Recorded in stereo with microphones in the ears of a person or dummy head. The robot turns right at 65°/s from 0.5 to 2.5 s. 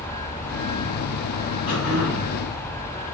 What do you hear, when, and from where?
1.7 s throat clearing: 40° left, 1.5 m; by 2.3 s 85° left, 1.5 m